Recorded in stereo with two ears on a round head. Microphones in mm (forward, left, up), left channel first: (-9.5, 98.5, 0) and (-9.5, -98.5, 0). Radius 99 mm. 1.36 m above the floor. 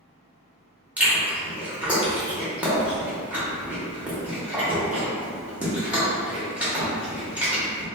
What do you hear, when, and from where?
1.0 s chewing: 5° right (ahead or behind), 0.9 m